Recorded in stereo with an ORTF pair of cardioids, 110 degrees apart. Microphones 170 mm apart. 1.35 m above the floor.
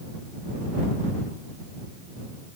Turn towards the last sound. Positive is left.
No sound to turn to.